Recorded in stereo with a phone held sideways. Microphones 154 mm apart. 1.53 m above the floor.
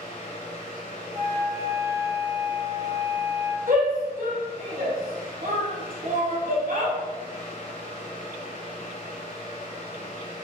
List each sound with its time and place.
0.0 s a fan: 40° left (ahead or behind), 0.7 m
1.1 s a flute: 20° right (ahead or behind), 1.7 m
3.7 s a shout: 65° right (ahead or behind), 1.1 m